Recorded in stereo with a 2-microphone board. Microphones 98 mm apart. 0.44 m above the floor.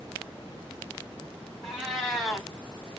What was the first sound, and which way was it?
A cat meowing, 5° left (ahead or behind).